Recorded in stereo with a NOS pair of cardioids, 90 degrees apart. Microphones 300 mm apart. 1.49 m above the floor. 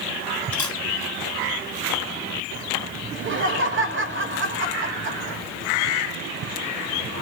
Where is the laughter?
40° right, 1.0 m.